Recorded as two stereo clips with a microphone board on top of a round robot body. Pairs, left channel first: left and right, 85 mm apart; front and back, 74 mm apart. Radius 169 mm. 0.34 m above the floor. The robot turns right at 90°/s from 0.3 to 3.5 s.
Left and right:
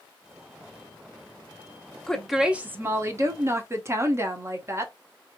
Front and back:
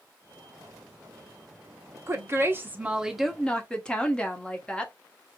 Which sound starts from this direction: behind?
A woman speaking, at 2.1 s.